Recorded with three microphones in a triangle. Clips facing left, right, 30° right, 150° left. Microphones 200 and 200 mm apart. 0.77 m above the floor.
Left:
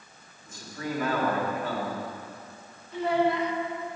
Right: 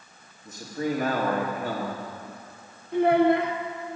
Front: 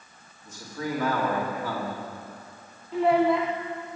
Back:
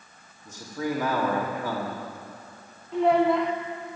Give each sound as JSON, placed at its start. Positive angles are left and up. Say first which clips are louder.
{"t": 0.5, "sound": "a man speaking", "louder": "right 6 dB, back 3 dB", "azimuth_deg": -135, "distance_m": 1.9}
{"t": 2.9, "sound": "a child speaking", "louder": "right 6 dB, back 1 dB", "azimuth_deg": -120, "distance_m": 1.0}